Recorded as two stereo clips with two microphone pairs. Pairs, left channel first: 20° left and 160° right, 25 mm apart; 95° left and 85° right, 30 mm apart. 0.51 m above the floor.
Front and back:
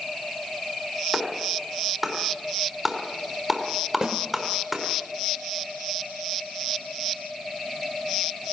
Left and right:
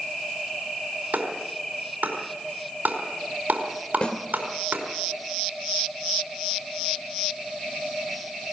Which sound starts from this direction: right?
A clap, at 1.1 s.